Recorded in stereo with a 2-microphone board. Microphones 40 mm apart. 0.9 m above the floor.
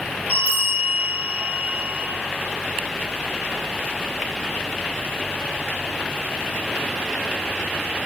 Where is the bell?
35° right (ahead or behind), 0.9 m.